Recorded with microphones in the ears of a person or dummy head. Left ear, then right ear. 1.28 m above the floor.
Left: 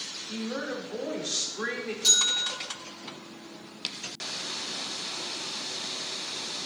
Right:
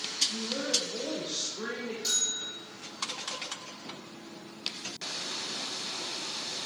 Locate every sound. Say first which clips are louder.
0.3 s a woman speaking: right 3 dB; 60° left (ahead or behind), 4 m
2.0 s a bell: left 8 dB; 20° left (ahead or behind), 6 m